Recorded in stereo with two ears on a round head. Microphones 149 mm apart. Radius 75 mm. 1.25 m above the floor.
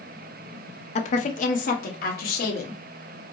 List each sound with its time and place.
0.9 s a woman speaking: 40° left (ahead or behind), 0.6 m; by 2.8 s 60° left (ahead or behind), 1.5 m